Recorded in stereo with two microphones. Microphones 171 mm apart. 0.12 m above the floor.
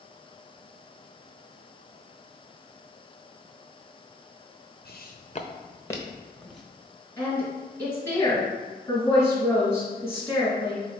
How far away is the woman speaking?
About 1.5 m.